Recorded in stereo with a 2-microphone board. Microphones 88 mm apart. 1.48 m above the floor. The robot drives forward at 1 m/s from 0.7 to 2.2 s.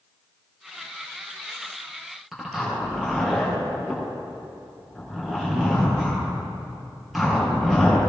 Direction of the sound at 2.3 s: Centre (ahead or behind).